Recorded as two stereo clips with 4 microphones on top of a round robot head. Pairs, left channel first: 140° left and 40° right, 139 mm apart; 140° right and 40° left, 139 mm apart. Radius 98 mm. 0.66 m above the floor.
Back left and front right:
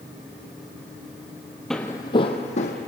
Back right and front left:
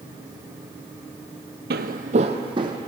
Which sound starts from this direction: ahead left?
Footsteps, at 1.7 s.